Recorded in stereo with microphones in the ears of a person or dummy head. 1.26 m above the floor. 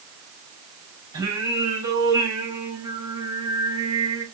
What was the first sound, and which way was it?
Singing, 25° right (ahead or behind).